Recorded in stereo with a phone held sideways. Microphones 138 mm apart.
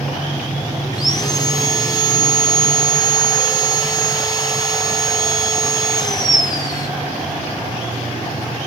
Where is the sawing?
30° left (ahead or behind), 1.8 m.